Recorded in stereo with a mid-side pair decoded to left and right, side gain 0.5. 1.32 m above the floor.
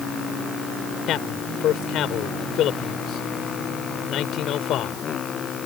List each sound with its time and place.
1.1 s a man speaking: 70° left